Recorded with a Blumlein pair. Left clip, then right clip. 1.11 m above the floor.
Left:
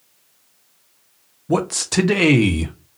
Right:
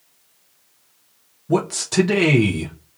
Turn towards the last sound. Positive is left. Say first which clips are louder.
# left 1 dB
turn(degrees=10)